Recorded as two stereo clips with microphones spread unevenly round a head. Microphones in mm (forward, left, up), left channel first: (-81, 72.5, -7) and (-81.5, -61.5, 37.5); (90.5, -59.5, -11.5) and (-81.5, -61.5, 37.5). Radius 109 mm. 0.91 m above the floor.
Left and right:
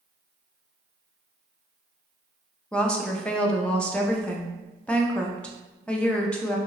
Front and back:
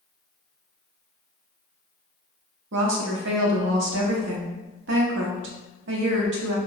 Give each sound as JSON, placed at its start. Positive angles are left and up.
{"t": 2.7, "sound": "a woman speaking", "azimuth_deg": 160, "distance_m": 0.7}